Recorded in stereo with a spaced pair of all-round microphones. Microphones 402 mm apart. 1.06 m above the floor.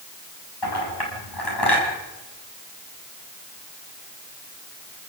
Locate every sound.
0.6 s a clink: 80° left, 6.5 m